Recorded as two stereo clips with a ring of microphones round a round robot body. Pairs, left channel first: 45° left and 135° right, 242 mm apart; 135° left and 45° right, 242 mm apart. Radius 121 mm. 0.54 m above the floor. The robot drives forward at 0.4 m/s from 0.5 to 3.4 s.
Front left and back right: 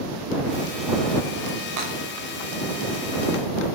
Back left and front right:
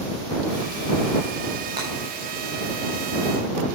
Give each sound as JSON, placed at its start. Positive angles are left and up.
{"t": 1.8, "sound": "breaking glass", "azimuth_deg": -115, "distance_m": 6.0}